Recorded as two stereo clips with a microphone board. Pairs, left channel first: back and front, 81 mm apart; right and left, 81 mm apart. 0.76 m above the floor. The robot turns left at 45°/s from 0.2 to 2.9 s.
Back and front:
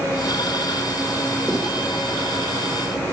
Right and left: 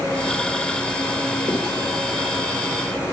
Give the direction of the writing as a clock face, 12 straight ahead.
3 o'clock.